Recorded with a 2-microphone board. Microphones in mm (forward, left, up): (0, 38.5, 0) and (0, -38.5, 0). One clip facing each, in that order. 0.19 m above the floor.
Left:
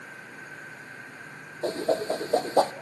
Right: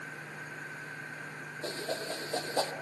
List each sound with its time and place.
1.6 s a whoosh: 40° left (ahead or behind), 1.2 m